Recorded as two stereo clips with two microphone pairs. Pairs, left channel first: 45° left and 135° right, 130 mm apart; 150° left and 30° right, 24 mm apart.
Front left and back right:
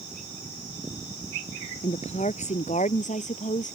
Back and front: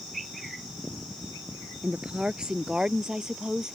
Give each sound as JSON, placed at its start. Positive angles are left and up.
{"t": 1.8, "sound": "a woman speaking", "azimuth_deg": 20}